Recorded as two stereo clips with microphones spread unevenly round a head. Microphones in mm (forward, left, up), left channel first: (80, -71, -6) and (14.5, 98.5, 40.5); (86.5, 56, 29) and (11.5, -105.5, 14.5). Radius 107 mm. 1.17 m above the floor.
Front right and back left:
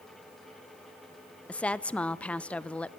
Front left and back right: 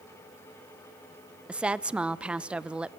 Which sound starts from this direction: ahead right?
A woman speaking, at 1.5 s.